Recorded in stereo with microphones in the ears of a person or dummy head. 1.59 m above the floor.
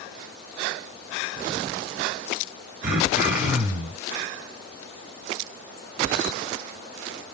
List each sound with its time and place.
2.8 s throat clearing: 15° right (ahead or behind), 2.5 m